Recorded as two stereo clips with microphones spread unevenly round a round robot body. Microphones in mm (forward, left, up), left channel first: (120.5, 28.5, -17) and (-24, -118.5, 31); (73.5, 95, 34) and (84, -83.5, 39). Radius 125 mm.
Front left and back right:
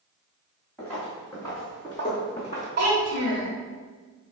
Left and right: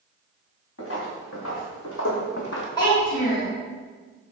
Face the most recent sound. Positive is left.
turn(degrees=165)